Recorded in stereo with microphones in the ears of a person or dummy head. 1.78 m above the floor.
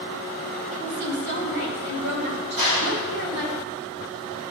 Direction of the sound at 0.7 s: 75° right (ahead or behind).